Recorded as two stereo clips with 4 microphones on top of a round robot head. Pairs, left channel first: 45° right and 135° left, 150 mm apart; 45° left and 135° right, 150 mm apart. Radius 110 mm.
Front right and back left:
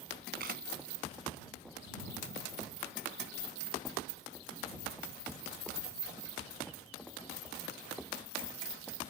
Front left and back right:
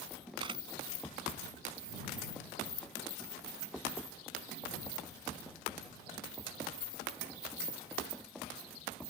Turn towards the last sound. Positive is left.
turn(degrees=165)